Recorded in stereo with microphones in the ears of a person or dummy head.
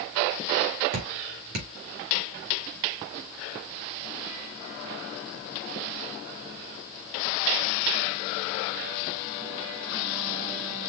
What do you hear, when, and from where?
0.9 s dripping: 70° right (ahead or behind), 2.5 m